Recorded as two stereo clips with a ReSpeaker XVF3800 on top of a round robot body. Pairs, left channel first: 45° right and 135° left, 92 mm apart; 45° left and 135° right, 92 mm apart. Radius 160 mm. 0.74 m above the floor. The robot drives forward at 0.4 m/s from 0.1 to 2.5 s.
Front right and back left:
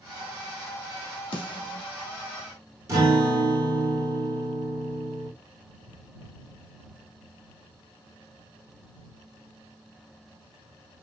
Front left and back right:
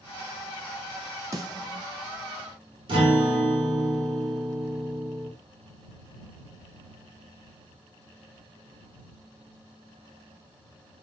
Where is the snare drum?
75° right, 0.7 m; by 1.9 s 95° right, 0.7 m.